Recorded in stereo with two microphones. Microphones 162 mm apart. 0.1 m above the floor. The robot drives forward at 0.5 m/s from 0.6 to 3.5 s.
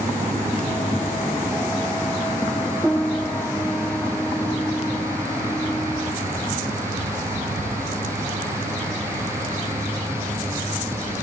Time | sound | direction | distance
2.8 | a piano | 5° left (ahead or behind) | ?